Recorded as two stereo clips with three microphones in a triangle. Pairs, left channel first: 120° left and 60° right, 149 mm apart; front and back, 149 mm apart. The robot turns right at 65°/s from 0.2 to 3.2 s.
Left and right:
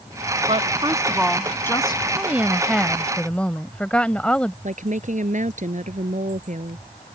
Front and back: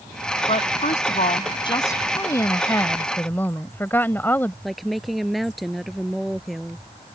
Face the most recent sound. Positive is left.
turn(degrees=-90)